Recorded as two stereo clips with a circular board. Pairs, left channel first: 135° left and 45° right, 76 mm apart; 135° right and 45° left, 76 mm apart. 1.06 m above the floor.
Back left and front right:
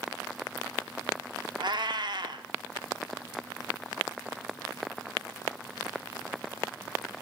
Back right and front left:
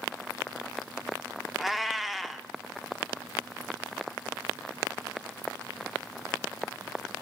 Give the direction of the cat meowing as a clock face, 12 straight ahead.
1 o'clock.